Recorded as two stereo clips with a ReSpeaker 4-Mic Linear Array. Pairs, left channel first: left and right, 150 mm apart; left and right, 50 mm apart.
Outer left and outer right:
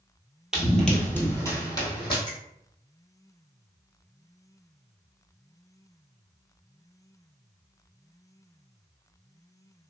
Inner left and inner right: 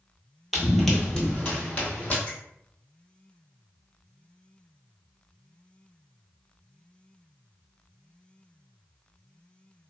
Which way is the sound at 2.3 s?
30° left (ahead or behind).